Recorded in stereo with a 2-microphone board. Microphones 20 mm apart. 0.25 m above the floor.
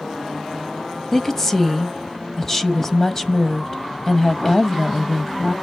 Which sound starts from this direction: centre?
A woman speaking, at 1.1 s.